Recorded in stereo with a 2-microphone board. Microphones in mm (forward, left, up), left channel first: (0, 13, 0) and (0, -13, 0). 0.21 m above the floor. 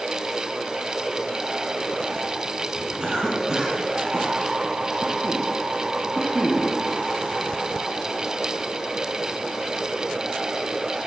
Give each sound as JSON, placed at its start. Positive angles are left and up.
{"t": 3.0, "sound": "a cough", "side_deg": -20, "distance_m": 1.9}